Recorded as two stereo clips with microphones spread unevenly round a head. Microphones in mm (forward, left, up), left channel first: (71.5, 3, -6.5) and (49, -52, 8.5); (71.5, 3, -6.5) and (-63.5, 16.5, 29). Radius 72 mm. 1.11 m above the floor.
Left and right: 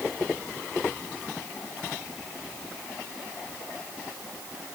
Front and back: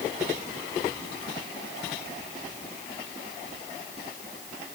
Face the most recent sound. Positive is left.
No sound to turn to.